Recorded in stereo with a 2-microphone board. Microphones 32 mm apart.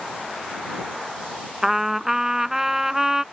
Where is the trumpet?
10° right (ahead or behind).